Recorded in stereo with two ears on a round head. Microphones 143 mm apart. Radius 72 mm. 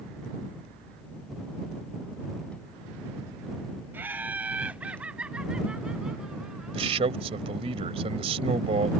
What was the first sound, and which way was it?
Laughter, 15° right (ahead or behind).